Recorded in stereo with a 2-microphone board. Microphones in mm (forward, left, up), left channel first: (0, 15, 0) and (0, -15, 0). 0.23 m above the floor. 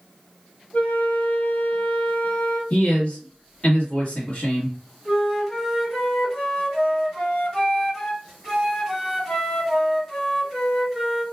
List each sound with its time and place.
0.7 s a flute: 45° left (ahead or behind), 1.3 m
2.7 s a man speaking: 30° left (ahead or behind), 1.4 m
5.0 s a flute: 5° left (ahead or behind), 1.6 m